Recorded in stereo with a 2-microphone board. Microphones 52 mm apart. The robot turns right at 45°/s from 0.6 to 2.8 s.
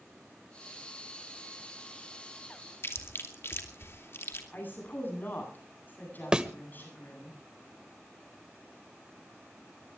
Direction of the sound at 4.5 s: 40° left (ahead or behind).